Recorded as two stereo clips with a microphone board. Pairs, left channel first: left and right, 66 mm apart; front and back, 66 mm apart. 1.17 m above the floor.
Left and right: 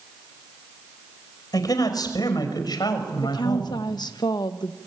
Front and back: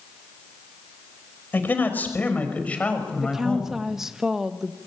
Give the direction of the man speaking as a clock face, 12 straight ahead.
10 o'clock.